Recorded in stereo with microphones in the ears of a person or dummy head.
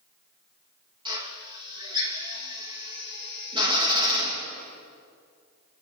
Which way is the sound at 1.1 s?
20° right (ahead or behind).